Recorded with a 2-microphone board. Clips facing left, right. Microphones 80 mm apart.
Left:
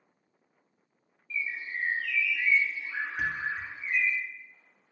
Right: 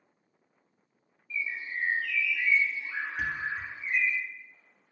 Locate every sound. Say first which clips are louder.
1.3 s a bird: even; 15° right (ahead or behind), 0.8 m
3.2 s a thud: left 1 dB; 10° left (ahead or behind), 0.5 m